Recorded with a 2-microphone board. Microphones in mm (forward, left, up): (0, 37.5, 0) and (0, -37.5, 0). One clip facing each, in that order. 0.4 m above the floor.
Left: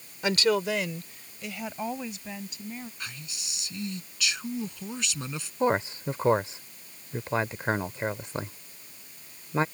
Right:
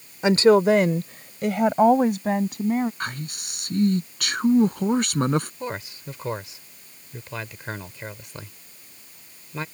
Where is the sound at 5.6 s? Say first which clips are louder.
Left 7 dB; 30° left (ahead or behind).